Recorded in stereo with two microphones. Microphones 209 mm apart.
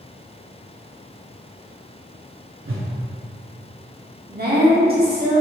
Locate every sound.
2.6 s a whoosh: 80° right, 0.7 m
4.3 s a woman speaking: 45° right (ahead or behind), 1.2 m